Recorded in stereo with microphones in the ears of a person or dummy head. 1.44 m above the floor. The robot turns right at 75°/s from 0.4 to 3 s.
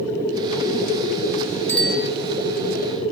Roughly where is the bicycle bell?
Behind.